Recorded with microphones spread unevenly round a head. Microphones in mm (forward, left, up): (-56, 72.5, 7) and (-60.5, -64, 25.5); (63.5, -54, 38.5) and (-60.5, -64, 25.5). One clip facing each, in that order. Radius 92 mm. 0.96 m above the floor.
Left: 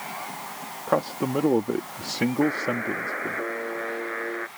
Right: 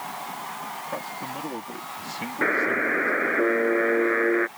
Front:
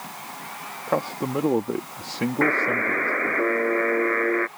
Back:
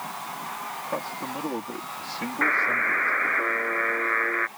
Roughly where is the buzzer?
Ahead right.